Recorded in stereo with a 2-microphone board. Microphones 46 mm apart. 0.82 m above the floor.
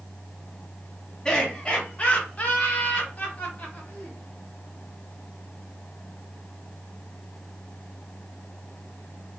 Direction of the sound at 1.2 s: 10° left (ahead or behind).